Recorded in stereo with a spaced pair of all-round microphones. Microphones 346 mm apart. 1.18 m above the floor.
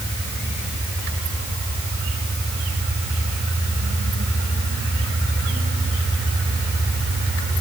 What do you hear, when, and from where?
Only background noise.